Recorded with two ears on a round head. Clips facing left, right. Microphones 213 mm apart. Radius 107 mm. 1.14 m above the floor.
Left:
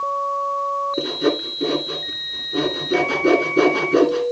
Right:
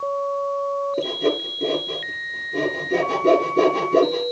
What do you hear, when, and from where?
1.0 s sawing: 25° left (ahead or behind), 2.5 m